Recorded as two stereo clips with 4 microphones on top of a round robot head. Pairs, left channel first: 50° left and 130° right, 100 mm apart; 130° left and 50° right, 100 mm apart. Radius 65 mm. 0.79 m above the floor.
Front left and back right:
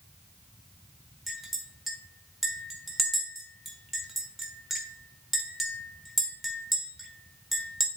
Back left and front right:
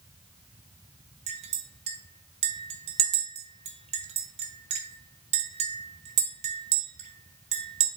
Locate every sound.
1.3 s a clink: 45° right, 1.3 m